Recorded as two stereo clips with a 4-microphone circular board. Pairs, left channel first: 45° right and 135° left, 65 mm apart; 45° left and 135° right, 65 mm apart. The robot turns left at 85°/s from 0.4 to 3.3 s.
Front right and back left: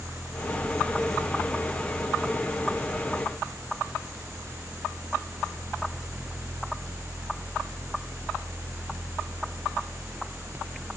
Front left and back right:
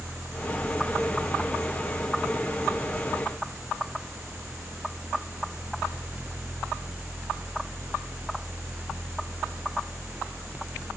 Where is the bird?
No bird in this recording.